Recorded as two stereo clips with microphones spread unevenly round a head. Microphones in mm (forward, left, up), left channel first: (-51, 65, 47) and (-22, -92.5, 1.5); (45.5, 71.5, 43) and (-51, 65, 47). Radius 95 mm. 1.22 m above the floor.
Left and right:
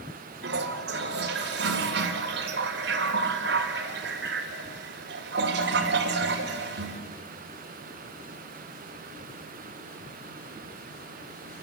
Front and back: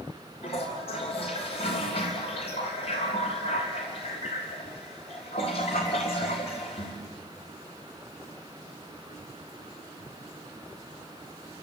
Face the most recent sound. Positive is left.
turn(degrees=-45)